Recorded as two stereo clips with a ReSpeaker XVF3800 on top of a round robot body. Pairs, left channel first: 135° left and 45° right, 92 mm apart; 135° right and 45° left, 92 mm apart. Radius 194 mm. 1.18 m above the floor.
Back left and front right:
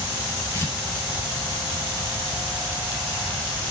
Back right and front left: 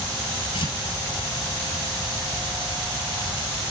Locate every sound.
0.5 s tearing paper: 150° right, 5.5 m